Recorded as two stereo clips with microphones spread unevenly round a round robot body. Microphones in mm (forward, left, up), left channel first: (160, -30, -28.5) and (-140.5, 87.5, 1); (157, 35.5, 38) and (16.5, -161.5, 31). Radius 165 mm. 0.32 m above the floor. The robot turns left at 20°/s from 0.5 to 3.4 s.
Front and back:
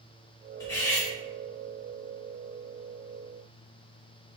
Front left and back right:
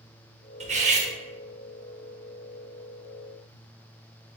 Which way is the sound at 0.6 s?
90° right.